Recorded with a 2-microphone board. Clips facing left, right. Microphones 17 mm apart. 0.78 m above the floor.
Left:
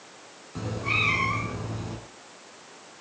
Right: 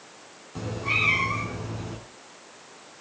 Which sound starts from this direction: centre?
A cat meowing, at 0.6 s.